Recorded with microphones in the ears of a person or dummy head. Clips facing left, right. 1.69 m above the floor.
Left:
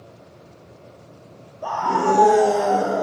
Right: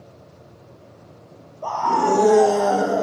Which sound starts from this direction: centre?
A scream, at 1.6 s.